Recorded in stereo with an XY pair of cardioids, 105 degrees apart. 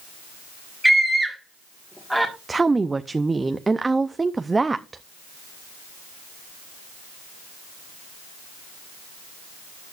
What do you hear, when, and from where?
0.8 s a scream: straight ahead, 1.6 m
2.5 s a woman speaking: 20° right, 0.6 m